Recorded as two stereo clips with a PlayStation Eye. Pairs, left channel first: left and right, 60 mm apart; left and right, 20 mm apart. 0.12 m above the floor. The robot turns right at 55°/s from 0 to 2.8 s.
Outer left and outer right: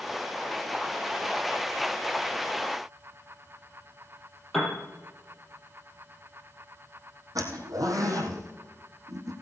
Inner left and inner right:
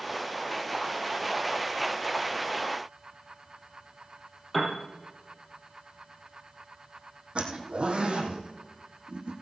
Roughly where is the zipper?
Right.